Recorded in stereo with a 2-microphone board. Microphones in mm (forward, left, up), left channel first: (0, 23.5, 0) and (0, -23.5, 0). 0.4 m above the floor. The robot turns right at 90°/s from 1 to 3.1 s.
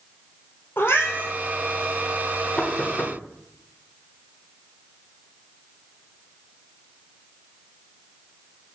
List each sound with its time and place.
0.8 s a cat meowing: 55° left (ahead or behind), 2 m; by 1.3 s 30° left (ahead or behind), 2 m
2.6 s knocking: 30° left (ahead or behind), 0.9 m; by 3.2 s 35° left (ahead or behind), 0.9 m